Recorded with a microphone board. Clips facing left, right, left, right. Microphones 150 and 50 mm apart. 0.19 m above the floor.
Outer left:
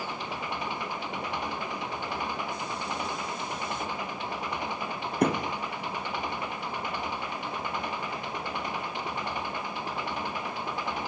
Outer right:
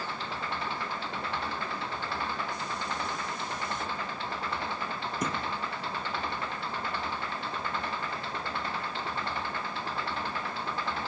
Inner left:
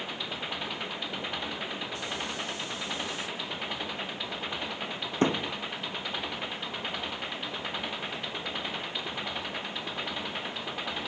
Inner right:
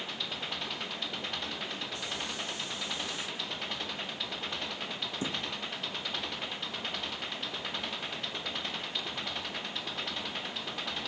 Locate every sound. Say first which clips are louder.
0.0 s an engine running: outer left 1 dB, inner left 3 dB; 15° left (ahead or behind)
5.2 s a thud: outer left 9 dB, inner left 11 dB; 60° left (ahead or behind)